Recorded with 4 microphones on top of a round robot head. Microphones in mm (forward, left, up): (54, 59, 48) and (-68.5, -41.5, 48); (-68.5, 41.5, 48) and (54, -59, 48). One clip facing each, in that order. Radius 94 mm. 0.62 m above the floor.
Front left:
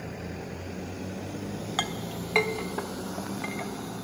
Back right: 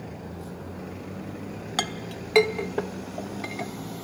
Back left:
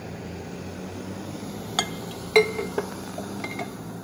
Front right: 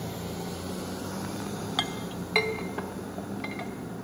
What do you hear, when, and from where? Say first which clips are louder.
1.8 s a clink: back right 1 dB, back left 2 dB; 175° left, 1.1 m